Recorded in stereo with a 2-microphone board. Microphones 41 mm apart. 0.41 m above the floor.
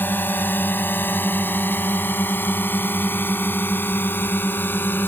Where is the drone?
55° left (ahead or behind); by 5.1 s 60° left (ahead or behind).